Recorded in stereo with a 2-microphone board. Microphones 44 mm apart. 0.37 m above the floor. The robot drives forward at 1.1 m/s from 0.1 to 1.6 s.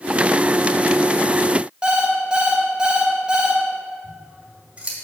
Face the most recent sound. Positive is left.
turn(degrees=-25)  # may be behind; listen again after turning